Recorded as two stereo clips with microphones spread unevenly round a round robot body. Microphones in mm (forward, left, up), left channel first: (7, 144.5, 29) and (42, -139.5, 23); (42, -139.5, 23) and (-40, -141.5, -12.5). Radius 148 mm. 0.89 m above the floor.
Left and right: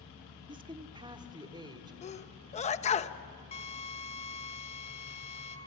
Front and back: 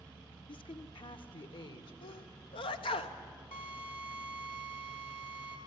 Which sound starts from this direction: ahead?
A woman speaking, at 0.5 s.